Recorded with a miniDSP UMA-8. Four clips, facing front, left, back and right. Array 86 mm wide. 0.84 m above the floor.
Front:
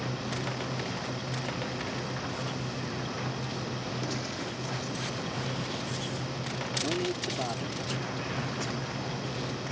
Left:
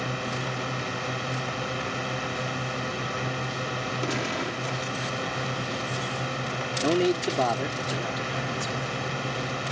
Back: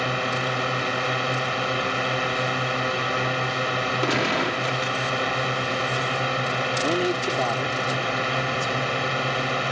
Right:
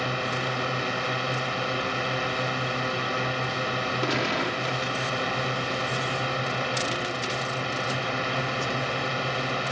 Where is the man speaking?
125° left.